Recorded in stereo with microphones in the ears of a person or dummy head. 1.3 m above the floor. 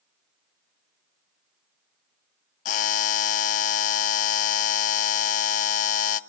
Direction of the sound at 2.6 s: 40° left (ahead or behind).